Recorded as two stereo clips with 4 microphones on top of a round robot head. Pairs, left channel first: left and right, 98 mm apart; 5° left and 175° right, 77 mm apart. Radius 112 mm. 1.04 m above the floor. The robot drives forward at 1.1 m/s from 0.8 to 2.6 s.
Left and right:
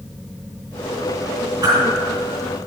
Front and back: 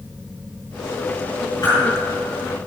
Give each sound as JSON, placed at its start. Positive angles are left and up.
{"t": 1.6, "sound": "a whoosh", "azimuth_deg": -45, "distance_m": 4.5}